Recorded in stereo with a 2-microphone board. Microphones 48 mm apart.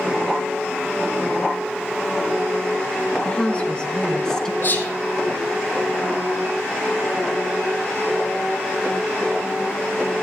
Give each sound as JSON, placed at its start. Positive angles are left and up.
{"t": 3.2, "sound": "a woman speaking", "side_deg": 25, "distance_m": 2.0}
{"t": 4.6, "sound": "whispering", "side_deg": 55, "distance_m": 4.0}